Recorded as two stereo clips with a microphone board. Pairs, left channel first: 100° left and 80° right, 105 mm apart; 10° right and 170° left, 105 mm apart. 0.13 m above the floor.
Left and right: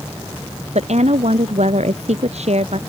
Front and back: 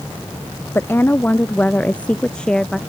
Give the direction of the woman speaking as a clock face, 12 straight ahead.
3 o'clock.